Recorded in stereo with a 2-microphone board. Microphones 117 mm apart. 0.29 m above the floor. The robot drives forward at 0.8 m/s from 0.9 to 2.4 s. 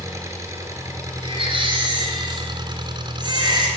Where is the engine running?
25° right (ahead or behind), 3 m; by 3.8 s 40° right (ahead or behind), 1.9 m.